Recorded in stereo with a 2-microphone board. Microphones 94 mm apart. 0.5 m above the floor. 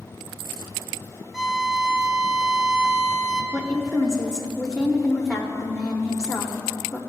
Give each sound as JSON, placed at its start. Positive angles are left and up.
{"t": 1.3, "sound": "a violin", "side_deg": -5, "distance_m": 0.6}
{"t": 3.5, "sound": "a woman speaking", "side_deg": -10, "distance_m": 1.1}